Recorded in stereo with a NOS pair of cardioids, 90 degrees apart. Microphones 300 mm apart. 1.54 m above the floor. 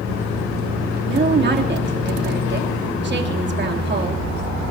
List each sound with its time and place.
1.1 s a woman speaking: 35° right, 3 m